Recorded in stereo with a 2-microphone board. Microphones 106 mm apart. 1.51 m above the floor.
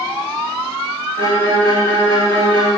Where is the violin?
55° right (ahead or behind), 3 m.